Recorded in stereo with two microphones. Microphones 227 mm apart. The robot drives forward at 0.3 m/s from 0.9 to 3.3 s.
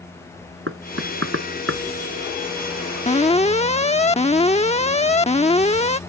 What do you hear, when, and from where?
0.7 s knocking: 60° right (ahead or behind)
3.1 s an alarm: 30° left (ahead or behind); by 6.0 s 25° left (ahead or behind)